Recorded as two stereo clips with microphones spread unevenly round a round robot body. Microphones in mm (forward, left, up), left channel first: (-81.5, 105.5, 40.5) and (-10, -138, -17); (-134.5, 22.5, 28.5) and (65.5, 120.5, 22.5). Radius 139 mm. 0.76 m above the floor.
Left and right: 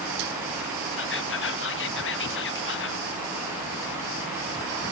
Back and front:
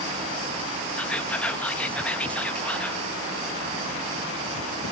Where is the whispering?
125° left, 1.1 m.